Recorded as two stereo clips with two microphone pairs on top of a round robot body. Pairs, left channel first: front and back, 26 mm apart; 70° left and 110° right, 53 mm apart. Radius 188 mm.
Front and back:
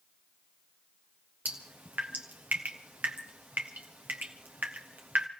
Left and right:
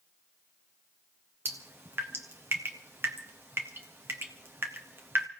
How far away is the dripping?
About 0.6 m.